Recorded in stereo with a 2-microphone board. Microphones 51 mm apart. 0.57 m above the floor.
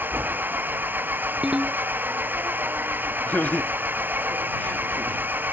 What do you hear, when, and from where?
0.0 s an engine running: 40° right (ahead or behind)
1.4 s a ringtone: 15° right (ahead or behind)
3.3 s laughter: 35° left (ahead or behind)